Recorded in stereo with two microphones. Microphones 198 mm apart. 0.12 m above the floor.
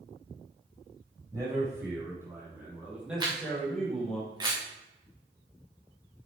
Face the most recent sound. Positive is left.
turn(degrees=-20)  # may be behind; listen again after turning